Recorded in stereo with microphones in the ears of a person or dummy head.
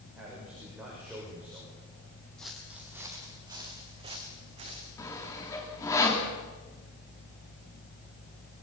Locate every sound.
0.1 s a man speaking: 5° right (ahead or behind), 7 m
2.4 s footsteps: 5° left (ahead or behind), 3 m; by 4.9 s 35° right (ahead or behind), 5.5 m
5.0 s sawing: 15° left (ahead or behind), 3 m